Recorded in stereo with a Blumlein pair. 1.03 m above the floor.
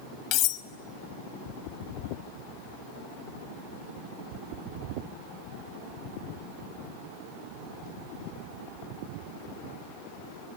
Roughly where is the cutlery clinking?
Ahead left.